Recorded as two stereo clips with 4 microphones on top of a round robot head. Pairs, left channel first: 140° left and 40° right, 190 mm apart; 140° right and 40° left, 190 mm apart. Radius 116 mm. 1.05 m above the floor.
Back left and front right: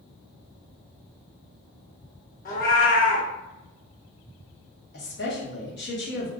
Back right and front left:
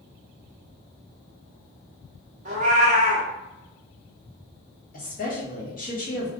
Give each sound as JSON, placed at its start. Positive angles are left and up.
{"t": 2.5, "sound": "a cat meowing", "azimuth_deg": 95, "distance_m": 0.7}
{"t": 4.9, "sound": "a woman speaking", "azimuth_deg": 175, "distance_m": 1.6}